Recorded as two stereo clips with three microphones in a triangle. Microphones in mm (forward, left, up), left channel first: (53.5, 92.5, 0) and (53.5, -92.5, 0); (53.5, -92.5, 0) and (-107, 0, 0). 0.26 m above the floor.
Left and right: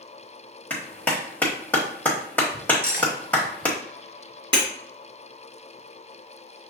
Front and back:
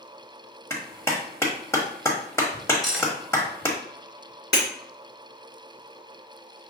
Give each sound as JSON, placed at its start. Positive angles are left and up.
{"t": 0.7, "sound": "a clap", "azimuth_deg": 20, "distance_m": 1.1}
{"t": 2.8, "sound": "cutlery clinking", "azimuth_deg": 60, "distance_m": 1.5}
{"t": 4.5, "sound": "breaking glass", "azimuth_deg": -30, "distance_m": 1.9}